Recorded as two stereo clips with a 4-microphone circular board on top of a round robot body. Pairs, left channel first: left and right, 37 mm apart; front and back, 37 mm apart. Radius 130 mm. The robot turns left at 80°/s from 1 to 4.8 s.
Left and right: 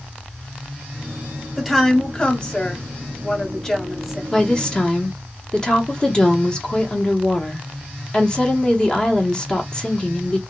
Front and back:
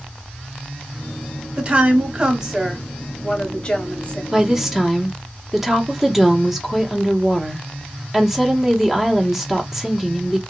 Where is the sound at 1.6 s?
160° right, 1.1 m; by 4.2 s 10° right, 1.1 m.